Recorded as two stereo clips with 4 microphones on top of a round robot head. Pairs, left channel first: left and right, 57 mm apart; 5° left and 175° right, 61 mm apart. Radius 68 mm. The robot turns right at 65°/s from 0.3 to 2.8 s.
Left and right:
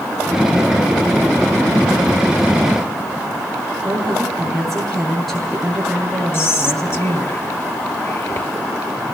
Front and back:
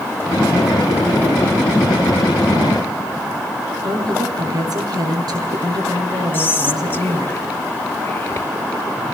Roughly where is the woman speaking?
Behind.